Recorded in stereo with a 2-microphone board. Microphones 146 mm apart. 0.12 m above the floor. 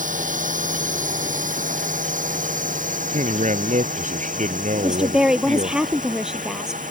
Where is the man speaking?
55° right (ahead or behind).